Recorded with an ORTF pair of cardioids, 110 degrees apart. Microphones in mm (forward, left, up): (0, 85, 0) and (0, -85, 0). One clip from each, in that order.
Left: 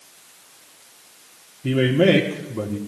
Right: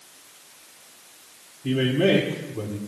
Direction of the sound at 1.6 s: 35° left.